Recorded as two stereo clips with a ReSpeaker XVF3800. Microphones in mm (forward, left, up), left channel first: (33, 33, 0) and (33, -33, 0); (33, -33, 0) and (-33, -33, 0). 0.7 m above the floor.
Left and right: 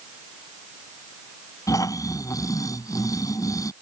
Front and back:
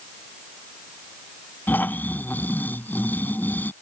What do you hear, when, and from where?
1.7 s snoring: 60° left